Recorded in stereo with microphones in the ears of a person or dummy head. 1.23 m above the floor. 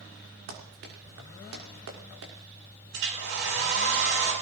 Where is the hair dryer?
70° right (ahead or behind), 9 m.